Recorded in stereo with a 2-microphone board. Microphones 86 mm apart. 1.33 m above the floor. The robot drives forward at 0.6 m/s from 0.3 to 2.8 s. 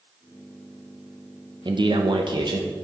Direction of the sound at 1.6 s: 60° right (ahead or behind).